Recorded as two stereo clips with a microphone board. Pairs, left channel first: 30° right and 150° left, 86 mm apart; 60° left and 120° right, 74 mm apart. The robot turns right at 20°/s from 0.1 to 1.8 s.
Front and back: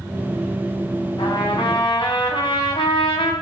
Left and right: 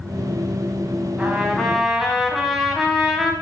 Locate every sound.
1.2 s a trumpet: 45° right, 4 m; by 3.3 s 35° right, 4 m